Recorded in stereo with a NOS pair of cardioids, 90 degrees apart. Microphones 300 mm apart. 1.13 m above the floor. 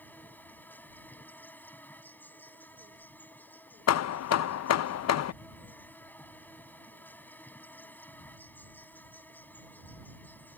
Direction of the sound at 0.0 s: 5° left.